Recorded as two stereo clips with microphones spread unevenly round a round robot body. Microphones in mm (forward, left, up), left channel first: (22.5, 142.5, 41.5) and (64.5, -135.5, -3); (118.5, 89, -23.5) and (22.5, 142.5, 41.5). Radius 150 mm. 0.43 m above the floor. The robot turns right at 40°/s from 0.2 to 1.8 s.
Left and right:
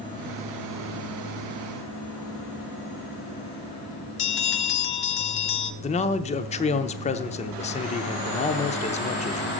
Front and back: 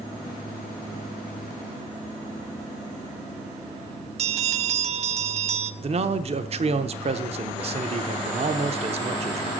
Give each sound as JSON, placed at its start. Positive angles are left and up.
{"t": 4.2, "sound": "a bell", "azimuth_deg": 150, "distance_m": 0.6}
{"t": 5.8, "sound": "a man speaking", "azimuth_deg": 145, "distance_m": 0.7}